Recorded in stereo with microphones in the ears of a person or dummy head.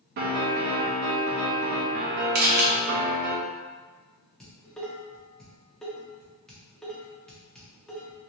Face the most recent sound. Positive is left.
turn(degrees=10)  # may be behind; listen again after turning